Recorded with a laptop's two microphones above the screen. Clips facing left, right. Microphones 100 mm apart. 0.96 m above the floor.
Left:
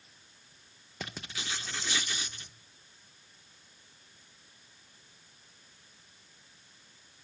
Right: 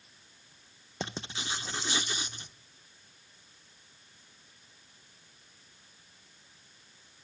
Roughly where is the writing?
Right.